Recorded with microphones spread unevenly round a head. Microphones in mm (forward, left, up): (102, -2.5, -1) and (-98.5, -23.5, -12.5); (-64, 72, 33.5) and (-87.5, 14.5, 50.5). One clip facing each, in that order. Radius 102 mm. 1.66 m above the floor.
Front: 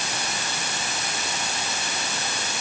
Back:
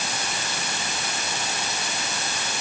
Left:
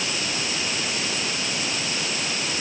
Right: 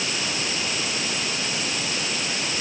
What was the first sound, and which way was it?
Only background noise.